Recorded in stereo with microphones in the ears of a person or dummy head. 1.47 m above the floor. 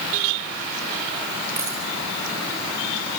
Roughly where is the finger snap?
No finger snap in this recording.